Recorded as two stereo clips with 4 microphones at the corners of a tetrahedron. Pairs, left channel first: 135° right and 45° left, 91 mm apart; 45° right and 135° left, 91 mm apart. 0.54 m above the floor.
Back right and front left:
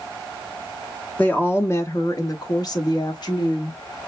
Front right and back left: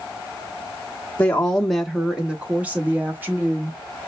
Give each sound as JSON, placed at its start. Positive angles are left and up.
{"t": 1.2, "sound": "a woman speaking", "azimuth_deg": -90, "distance_m": 0.9}